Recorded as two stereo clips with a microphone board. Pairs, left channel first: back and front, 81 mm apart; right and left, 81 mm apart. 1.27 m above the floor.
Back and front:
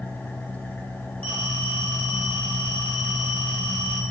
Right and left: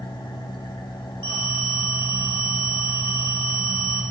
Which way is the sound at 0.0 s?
110° right.